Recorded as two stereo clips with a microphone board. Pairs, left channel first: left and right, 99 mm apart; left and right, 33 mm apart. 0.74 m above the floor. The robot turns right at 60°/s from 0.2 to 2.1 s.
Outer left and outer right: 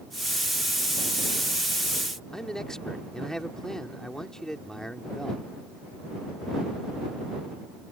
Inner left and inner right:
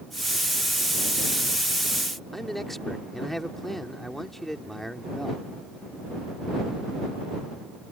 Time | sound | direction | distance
2.3 | a man speaking | 5° left (ahead or behind) | ?